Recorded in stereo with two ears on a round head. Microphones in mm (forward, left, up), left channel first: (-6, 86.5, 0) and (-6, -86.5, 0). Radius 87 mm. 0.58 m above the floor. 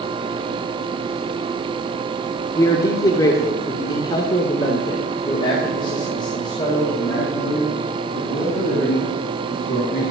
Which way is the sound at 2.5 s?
15° left (ahead or behind).